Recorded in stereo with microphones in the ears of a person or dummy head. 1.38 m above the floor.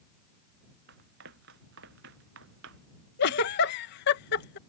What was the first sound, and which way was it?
Running footsteps, 60° right (ahead or behind).